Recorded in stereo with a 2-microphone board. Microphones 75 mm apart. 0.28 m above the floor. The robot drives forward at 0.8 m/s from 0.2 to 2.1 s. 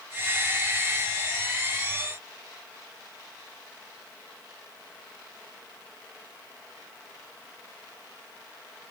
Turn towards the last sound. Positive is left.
No sound to turn to.